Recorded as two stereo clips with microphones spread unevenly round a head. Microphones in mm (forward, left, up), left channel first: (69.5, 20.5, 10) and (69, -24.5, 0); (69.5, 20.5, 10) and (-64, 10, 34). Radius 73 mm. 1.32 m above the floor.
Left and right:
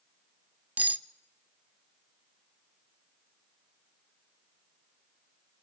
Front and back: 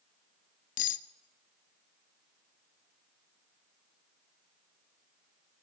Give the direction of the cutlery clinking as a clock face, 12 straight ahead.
1 o'clock.